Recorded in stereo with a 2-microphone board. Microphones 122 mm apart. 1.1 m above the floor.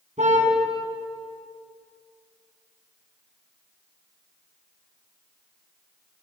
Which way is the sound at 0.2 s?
80° right.